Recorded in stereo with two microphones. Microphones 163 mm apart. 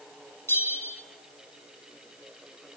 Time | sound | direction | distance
0.5 | a bell | 15° left (ahead or behind) | 2 m